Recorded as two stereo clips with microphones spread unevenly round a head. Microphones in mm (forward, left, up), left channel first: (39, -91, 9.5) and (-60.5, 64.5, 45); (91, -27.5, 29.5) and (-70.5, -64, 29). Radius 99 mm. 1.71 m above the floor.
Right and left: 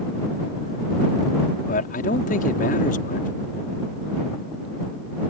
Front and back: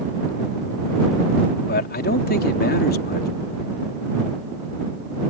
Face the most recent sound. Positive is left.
turn(degrees=-5)